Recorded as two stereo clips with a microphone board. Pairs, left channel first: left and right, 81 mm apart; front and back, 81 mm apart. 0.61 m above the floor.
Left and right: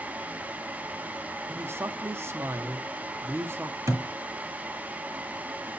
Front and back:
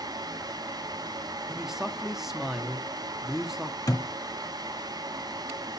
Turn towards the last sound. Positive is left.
turn(degrees=-40)